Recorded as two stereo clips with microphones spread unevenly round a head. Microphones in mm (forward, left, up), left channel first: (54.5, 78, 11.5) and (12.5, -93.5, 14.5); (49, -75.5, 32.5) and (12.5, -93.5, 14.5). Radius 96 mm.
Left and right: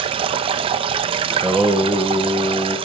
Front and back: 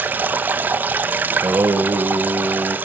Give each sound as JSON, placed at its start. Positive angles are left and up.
{"t": 0.0, "sound": "running water", "azimuth_deg": -105, "distance_m": 0.8}
{"t": 1.3, "sound": "singing", "azimuth_deg": 170, "distance_m": 1.6}